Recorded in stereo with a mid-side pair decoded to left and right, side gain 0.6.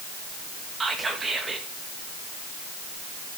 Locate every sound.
0.8 s whispering: 25° right, 2.5 m